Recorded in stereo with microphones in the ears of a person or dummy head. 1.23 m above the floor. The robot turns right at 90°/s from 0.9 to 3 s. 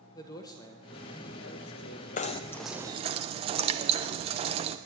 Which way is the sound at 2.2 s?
135° left.